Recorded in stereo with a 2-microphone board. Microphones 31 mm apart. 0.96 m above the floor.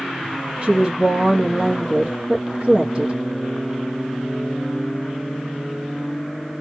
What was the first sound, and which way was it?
A woman speaking, 35° right (ahead or behind).